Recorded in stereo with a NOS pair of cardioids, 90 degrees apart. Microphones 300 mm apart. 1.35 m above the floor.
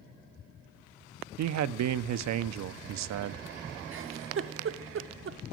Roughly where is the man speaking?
Ahead right.